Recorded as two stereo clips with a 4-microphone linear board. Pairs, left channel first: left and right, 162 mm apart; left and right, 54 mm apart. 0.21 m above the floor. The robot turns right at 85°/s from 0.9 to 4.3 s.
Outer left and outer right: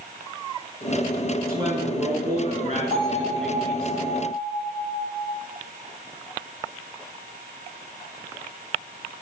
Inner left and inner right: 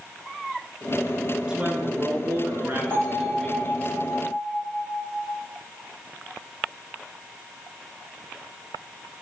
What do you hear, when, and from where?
1.5 s a man speaking: 160° right, 3 m; by 3.9 s 45° left, 3 m
2.9 s a bell: 45° right, 3 m; by 5.3 s 75° left, 3 m